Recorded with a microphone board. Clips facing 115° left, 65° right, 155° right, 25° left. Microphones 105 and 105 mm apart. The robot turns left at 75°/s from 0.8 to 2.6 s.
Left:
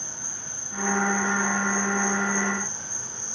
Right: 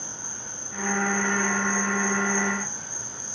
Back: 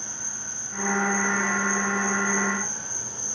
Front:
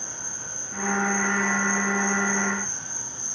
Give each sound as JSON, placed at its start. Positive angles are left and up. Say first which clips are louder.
{"t": 0.0, "sound": "an insect", "louder": "right 1 dB, front 1 dB", "azimuth_deg": -15, "distance_m": 3.0}